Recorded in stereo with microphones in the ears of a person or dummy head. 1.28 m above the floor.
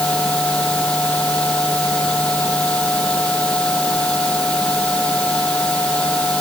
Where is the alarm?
I don't hear an alarm.